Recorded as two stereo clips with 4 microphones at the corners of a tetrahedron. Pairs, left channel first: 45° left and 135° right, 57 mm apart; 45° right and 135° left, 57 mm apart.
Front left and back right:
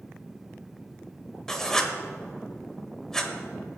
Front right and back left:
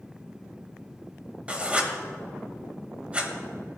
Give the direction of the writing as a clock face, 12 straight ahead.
8 o'clock.